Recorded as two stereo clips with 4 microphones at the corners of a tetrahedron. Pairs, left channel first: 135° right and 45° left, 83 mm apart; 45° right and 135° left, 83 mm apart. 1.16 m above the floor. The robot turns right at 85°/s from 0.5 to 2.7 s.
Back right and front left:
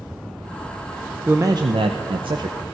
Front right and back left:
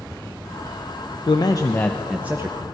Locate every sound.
1.3 s a man speaking: 25° right, 0.6 m; by 2.6 s 95° left, 0.6 m